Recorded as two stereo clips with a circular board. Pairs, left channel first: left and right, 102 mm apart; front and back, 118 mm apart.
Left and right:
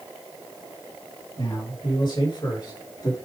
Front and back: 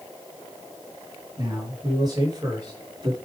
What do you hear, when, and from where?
1.4 s a man speaking: 125° left, 4 m; by 3.2 s 135° left, 3.5 m